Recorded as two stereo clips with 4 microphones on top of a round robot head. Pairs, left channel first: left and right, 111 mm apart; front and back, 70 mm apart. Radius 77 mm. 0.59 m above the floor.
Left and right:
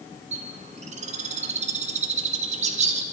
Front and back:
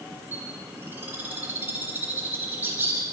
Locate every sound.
0.3 s a bird: 105° right, 1.7 m